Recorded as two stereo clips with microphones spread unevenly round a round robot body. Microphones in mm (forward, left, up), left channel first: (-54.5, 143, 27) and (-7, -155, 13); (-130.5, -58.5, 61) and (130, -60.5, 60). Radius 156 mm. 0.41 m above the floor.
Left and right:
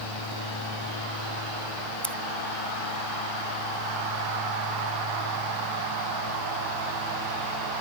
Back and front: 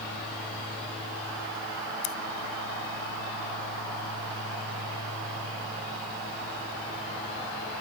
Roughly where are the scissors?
Behind.